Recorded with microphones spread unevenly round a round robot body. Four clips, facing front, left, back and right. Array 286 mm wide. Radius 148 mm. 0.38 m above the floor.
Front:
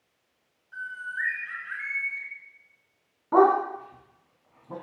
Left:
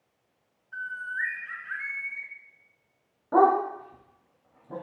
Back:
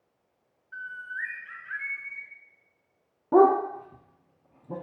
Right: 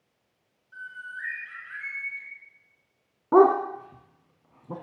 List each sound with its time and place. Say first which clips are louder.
0.7 s a bird: left 6 dB, front 3 dB; 75° left, 2.5 m
3.3 s a dog barking: right 3 dB, back 1 dB; 115° right, 1.3 m